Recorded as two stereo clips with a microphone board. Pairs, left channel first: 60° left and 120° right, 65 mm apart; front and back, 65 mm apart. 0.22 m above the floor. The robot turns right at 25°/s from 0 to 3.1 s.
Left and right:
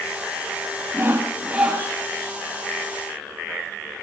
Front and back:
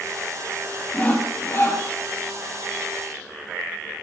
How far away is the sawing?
About 4.5 m.